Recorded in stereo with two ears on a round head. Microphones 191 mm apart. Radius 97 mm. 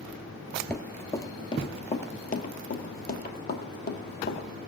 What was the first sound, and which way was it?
Running footsteps, 5° left (ahead or behind).